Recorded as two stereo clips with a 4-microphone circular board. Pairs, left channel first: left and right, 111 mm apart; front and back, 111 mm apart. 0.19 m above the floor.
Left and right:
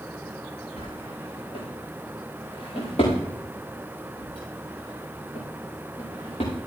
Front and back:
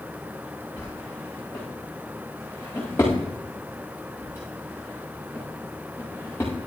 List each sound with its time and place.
0.8 s a drawer: 65° left, 9 m